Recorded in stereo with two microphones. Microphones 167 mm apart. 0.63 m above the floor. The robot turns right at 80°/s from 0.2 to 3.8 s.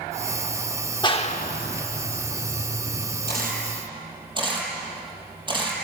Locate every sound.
1.0 s a clap: 25° left (ahead or behind), 1.1 m; by 3.1 s 15° right (ahead or behind), 1.1 m
3.3 s a camera shutter: 70° right (ahead or behind), 4.5 m; by 5.7 s 30° right (ahead or behind), 4.5 m